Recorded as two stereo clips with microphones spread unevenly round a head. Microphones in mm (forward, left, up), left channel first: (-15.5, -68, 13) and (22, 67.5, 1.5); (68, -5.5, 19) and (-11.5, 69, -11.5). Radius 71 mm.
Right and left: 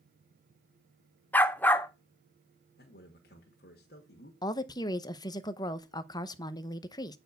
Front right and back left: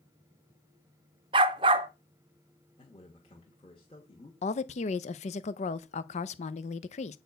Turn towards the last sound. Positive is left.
turn(degrees=-45)